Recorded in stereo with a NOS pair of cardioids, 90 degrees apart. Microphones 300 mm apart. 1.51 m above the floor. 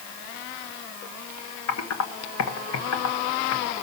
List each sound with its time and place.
1.7 s typing on a keyboard: 55° left, 1.3 m